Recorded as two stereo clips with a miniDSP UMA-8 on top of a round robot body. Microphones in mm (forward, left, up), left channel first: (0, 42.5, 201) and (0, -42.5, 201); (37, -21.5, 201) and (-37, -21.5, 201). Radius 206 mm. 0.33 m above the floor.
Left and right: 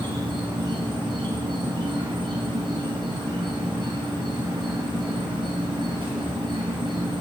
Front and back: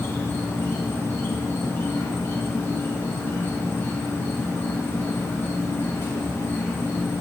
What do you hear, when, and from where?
0.0 s an insect: 60° right, 1.4 m